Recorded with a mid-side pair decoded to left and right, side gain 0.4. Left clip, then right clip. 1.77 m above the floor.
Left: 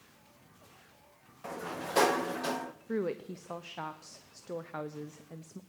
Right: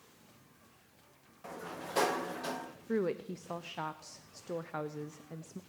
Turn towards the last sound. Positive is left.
turn(degrees=-5)